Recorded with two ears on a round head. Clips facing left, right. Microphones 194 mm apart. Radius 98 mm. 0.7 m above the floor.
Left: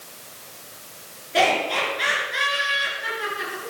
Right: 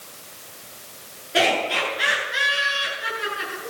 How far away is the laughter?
About 8.5 m.